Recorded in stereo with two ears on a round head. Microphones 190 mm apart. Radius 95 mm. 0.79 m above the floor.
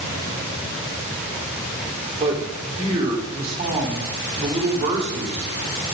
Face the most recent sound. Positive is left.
turn(degrees=-30)  # may be behind; listen again after turning